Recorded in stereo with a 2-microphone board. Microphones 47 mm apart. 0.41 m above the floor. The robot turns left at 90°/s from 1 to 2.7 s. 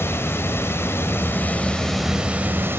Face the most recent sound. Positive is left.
turn(degrees=-60)